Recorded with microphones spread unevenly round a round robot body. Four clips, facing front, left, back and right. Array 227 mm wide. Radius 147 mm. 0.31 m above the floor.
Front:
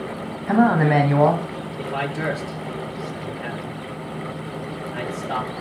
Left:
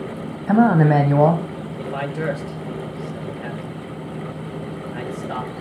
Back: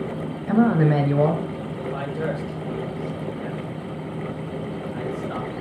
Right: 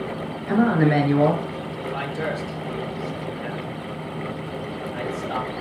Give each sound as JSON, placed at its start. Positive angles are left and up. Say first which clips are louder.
{"t": 0.5, "sound": "a man speaking", "louder": "left 4 dB, front 2 dB", "azimuth_deg": 90, "distance_m": 1.8}
{"t": 1.8, "sound": "a man speaking", "louder": "left 3 dB, front 3 dB", "azimuth_deg": 25, "distance_m": 8.0}